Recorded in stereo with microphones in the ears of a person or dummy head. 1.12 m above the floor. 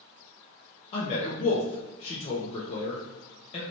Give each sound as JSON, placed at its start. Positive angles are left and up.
{"t": 0.9, "sound": "a man speaking", "side_deg": 35, "distance_m": 0.7}